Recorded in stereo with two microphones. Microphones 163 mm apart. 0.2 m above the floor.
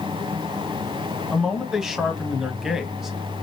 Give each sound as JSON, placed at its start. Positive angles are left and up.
{"t": 1.3, "sound": "a man speaking", "side_deg": -5, "distance_m": 1.0}